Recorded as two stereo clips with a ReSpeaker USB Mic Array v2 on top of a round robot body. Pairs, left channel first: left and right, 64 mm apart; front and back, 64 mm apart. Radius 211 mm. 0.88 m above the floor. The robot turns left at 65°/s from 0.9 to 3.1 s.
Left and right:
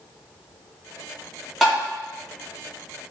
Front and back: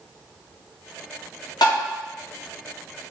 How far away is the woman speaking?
No woman speaking in this recording.